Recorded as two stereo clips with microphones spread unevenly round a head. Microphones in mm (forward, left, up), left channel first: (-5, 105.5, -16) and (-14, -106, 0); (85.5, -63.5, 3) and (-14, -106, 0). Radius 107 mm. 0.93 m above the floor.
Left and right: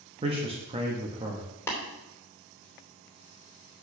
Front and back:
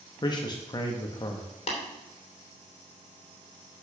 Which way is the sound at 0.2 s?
25° right.